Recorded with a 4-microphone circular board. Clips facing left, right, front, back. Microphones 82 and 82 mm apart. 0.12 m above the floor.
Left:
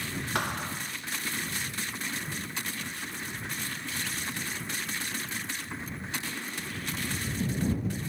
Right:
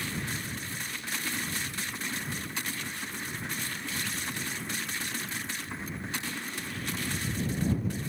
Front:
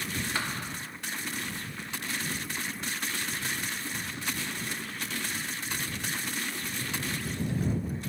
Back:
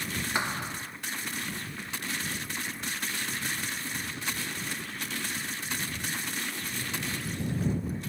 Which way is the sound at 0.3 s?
110° left.